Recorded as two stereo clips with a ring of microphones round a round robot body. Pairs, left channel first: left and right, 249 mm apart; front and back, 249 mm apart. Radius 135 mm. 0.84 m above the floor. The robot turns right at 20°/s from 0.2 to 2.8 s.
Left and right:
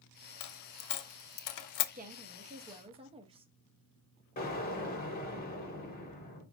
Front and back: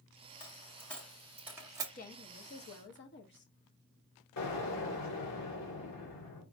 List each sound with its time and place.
0.4 s a dropped coin: 75° left, 0.5 m; by 1.9 s 105° left, 0.5 m
1.9 s a woman speaking: 45° right, 1.0 m; by 3.5 s 30° right, 1.0 m
4.4 s an explosion: 35° left, 1.7 m